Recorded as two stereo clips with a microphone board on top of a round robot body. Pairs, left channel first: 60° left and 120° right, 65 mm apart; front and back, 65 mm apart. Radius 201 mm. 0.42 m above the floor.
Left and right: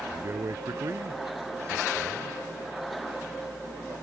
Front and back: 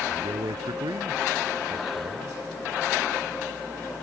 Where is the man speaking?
165° right.